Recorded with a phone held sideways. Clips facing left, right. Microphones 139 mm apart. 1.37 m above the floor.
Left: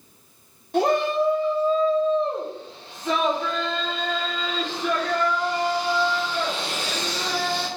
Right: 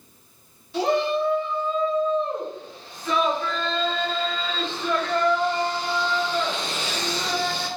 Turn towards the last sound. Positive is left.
turn(degrees=10)  # may be behind; listen again after turning